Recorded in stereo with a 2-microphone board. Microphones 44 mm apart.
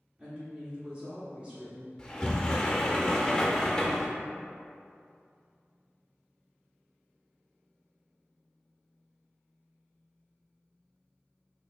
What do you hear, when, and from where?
0.2 s a woman speaking: 20° right (ahead or behind), 0.8 m
2.0 s a sliding door: 15° left (ahead or behind), 0.5 m